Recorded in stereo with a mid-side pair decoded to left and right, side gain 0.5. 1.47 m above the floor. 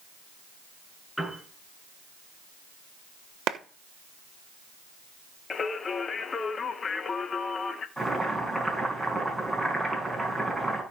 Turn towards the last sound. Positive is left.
turn(degrees=-5)